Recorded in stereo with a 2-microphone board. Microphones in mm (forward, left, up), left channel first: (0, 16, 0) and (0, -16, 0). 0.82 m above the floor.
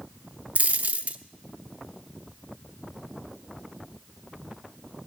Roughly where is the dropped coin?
Right.